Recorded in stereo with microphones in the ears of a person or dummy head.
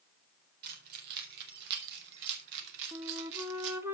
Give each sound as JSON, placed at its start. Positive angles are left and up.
{"t": 0.6, "sound": "keys jangling", "side_deg": -55, "distance_m": 3.5}
{"t": 2.9, "sound": "a flute", "side_deg": -15, "distance_m": 0.9}